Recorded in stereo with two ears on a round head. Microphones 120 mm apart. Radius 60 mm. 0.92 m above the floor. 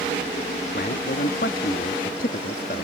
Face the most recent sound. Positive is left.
turn(degrees=70)  # may be behind; listen again after turning